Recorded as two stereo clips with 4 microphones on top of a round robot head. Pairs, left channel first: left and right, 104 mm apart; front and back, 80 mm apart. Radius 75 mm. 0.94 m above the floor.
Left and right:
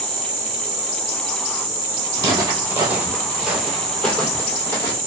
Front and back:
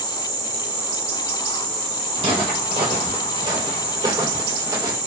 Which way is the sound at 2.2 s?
130° right.